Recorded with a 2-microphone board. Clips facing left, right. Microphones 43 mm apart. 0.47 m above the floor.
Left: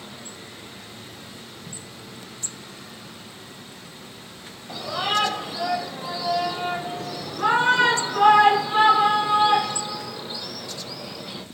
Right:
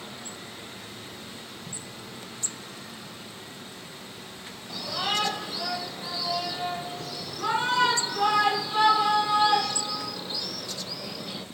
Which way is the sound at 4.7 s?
35° left (ahead or behind).